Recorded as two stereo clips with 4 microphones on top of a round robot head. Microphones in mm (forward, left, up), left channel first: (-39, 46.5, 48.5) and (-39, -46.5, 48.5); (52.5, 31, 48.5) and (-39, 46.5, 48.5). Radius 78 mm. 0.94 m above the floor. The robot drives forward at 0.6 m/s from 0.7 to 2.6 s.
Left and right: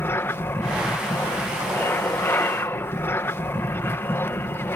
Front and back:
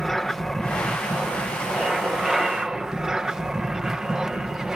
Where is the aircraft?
75° left; by 4.8 s 95° left.